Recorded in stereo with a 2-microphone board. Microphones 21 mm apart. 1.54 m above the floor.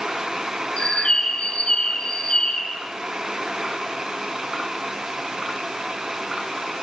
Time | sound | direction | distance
0.8 | a bird | 50° left (ahead or behind) | 4.5 m